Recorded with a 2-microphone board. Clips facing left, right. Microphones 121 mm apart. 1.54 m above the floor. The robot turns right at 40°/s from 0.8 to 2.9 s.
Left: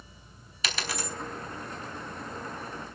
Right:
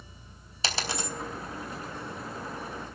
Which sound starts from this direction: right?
A dropped coin, at 0.6 s.